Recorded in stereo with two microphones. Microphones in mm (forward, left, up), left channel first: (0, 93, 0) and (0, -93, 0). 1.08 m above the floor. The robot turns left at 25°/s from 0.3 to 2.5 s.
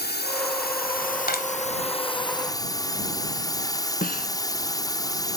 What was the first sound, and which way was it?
A drone, 75° left.